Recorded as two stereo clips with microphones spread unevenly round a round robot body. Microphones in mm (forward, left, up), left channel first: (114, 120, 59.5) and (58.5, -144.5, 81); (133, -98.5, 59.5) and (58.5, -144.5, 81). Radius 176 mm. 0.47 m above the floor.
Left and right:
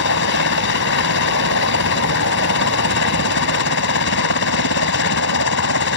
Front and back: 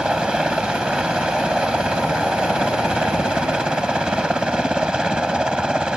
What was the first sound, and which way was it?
A helicopter, 125° left.